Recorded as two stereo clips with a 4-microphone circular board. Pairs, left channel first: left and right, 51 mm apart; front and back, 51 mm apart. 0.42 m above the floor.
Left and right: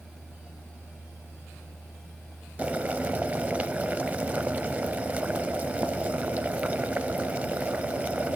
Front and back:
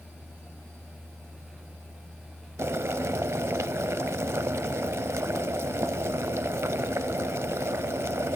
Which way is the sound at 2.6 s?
150° right.